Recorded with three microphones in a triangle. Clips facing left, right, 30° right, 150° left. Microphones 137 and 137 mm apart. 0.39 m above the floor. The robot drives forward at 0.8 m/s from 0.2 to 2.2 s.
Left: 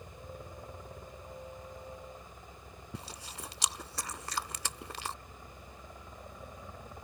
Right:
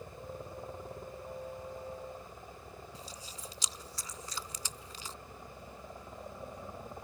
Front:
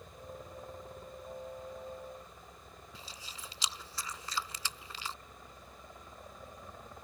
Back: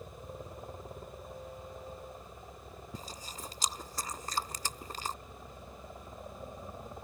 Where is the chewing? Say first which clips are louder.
Left 2 dB, back 7 dB; 105° left.